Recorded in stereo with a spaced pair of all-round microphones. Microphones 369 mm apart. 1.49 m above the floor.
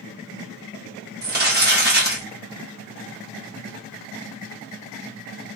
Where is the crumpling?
25° right (ahead or behind), 1.1 m.